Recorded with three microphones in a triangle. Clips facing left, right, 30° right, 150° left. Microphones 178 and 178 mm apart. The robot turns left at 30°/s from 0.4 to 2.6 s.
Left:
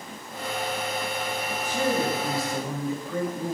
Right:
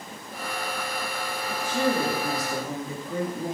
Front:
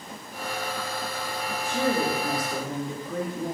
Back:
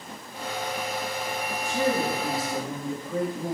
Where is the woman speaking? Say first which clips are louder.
Right 1 dB, even; 115° right, 1.1 m; by 3.5 s 145° right, 1.1 m.